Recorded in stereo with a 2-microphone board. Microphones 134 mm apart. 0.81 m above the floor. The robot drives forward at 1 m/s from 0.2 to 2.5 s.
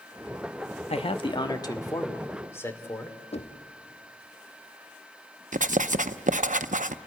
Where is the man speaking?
50° left (ahead or behind), 0.9 m; by 3.2 s 20° left (ahead or behind), 2 m.